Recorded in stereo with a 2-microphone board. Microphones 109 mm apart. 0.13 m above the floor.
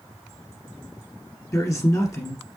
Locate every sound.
1.5 s a man speaking: 30° left (ahead or behind), 1.2 m